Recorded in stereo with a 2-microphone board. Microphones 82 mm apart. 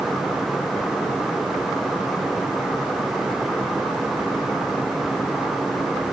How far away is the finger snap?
I don't hear a finger snap.